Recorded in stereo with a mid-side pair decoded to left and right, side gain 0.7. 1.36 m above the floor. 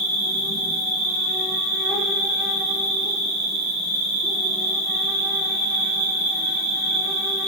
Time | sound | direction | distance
0.0 | an insect | 65° left | 1.5 m